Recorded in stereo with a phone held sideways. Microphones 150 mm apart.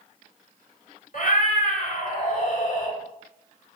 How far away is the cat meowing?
About 1.2 m.